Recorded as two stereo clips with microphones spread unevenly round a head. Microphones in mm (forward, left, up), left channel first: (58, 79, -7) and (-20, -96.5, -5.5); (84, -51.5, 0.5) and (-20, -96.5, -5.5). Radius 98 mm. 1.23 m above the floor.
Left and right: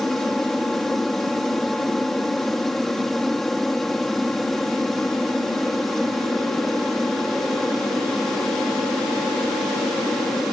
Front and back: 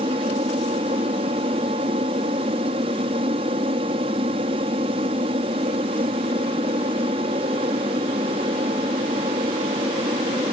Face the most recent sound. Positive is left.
turn(degrees=155)